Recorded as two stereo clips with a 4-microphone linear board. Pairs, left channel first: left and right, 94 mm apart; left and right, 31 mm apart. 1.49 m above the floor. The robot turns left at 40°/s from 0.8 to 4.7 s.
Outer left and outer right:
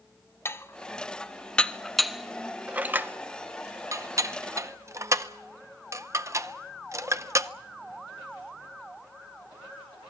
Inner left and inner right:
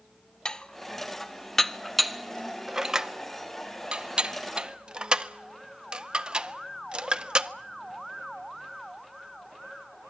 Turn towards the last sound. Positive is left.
turn(degrees=-35)  # may be behind; listen again after turning